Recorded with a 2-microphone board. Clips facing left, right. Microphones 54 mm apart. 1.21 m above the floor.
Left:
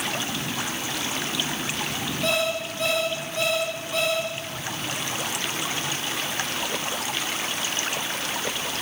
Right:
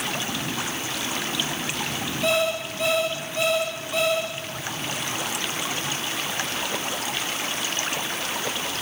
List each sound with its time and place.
2.2 s an alarm clock: centre (ahead or behind), 5 m